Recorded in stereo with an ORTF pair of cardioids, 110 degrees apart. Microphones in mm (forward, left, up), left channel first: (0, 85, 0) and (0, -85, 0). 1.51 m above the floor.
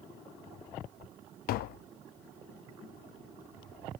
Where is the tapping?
65° left, 0.6 m.